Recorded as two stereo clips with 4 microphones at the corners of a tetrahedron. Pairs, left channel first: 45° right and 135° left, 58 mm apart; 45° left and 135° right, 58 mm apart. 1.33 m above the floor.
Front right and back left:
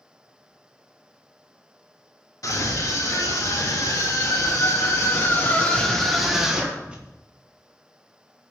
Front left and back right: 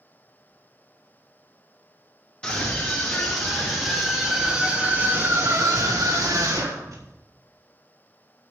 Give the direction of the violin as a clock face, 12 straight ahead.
I don't hear a violin.